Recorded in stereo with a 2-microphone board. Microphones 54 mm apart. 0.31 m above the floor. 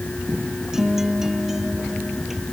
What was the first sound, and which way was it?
A guitar, 10° right (ahead or behind).